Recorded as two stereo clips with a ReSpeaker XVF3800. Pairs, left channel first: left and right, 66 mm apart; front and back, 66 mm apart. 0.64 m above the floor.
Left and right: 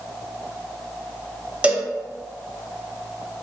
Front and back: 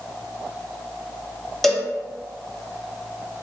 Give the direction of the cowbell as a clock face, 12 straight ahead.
3 o'clock.